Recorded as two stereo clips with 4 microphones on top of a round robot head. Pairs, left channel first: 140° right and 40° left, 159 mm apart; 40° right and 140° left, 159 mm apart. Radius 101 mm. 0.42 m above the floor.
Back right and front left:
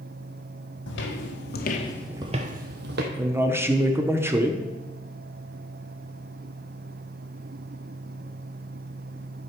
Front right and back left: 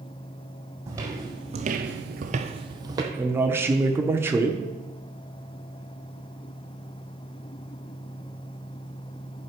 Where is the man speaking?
90° left, 0.9 m.